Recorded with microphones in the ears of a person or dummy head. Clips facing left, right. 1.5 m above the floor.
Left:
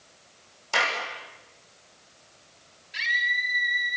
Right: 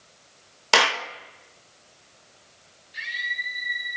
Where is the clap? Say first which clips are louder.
Right 6 dB; 85° right, 1.9 m.